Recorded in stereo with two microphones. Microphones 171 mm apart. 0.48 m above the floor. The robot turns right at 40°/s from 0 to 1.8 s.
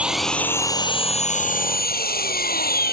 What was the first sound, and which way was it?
An engine running, 10° right.